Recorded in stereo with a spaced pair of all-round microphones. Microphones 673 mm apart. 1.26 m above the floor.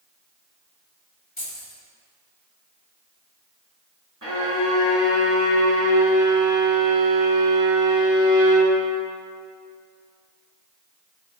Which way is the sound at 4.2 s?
30° right (ahead or behind).